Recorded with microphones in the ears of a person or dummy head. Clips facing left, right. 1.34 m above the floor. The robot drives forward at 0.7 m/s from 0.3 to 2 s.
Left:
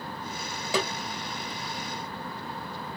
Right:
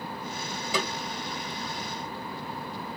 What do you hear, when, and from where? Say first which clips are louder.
0.7 s a snare drum: left 3 dB; 35° left (ahead or behind), 1.7 m